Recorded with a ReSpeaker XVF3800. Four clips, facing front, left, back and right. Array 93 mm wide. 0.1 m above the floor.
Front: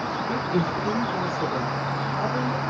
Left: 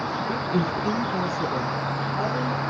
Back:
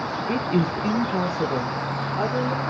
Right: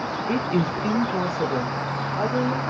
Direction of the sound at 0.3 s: 130° right.